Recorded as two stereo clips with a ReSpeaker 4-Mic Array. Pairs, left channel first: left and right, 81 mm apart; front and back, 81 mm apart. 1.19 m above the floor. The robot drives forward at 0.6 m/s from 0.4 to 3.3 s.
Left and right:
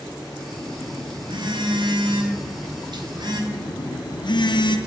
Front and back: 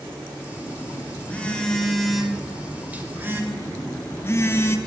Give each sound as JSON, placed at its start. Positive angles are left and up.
{"t": 0.5, "sound": "a phone buzzing", "azimuth_deg": -60, "distance_m": 1.9}
{"t": 3.5, "sound": "a phone buzzing", "azimuth_deg": 60, "distance_m": 0.9}